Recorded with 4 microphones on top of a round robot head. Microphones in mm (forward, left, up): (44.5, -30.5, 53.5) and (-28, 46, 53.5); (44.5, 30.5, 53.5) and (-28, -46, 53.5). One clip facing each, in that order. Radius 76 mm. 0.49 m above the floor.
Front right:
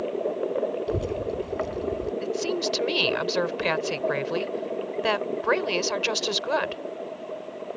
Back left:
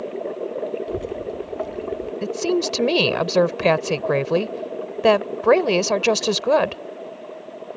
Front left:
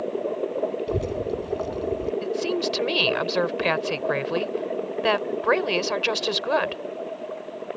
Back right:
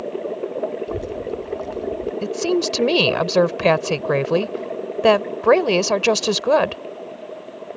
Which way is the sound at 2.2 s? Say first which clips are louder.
Back left 5 dB, back right 5 dB; 175° left.